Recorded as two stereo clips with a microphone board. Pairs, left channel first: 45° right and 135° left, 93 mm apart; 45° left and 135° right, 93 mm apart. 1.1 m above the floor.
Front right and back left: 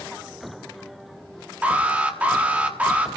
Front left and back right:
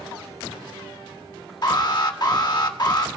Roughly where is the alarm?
Ahead left.